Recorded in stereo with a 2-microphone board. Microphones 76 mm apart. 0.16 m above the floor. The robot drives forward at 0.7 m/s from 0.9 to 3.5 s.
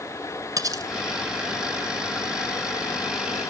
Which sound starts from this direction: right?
Cutlery clinking, at 0.6 s.